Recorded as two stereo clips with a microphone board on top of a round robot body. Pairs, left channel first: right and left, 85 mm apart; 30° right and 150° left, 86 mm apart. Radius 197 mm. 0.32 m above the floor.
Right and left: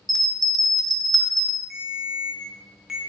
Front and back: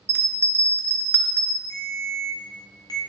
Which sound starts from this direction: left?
A bell, at 0.1 s.